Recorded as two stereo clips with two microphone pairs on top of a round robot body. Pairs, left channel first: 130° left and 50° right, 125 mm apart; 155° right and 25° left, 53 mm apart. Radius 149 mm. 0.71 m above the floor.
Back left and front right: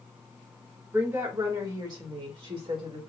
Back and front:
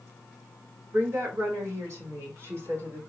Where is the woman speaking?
20° left, 1.9 m; by 3.0 s 10° right, 2.5 m.